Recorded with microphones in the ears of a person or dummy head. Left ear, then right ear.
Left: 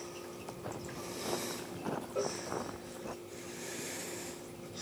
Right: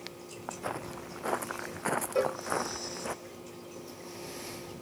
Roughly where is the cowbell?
Right.